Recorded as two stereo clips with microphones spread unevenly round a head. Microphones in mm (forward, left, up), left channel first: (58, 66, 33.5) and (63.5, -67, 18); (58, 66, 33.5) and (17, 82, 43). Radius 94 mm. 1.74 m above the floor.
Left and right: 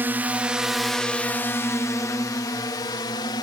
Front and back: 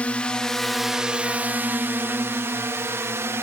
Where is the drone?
25° right; by 3.4 s 155° left.